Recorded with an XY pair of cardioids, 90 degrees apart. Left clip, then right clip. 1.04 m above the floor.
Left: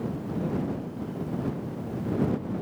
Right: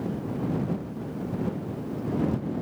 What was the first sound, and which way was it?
Only background noise.